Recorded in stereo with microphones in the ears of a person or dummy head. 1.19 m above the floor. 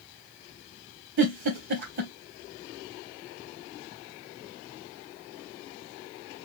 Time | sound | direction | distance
1.2 | a giggle | 55° right (ahead or behind) | 3.5 m